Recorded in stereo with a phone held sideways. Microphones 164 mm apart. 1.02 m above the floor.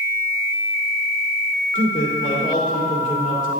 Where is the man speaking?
50° left (ahead or behind), 2 m.